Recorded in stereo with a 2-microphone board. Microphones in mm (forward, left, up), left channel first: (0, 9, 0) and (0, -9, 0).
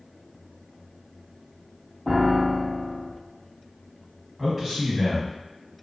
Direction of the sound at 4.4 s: 10° right (ahead or behind).